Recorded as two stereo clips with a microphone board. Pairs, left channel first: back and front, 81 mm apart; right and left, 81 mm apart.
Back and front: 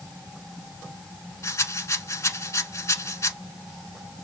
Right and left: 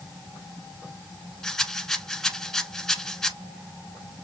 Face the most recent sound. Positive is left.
turn(degrees=-170)